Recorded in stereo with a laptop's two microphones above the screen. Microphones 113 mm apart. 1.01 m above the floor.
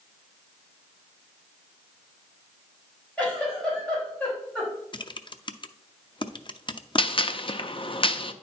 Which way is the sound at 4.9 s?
40° left (ahead or behind).